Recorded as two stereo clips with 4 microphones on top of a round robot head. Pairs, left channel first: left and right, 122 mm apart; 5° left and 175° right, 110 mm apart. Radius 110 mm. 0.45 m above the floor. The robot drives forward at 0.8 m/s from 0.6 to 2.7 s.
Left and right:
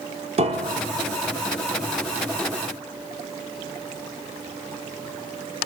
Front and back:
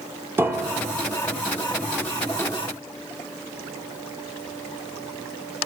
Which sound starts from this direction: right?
A piano, at 0.4 s.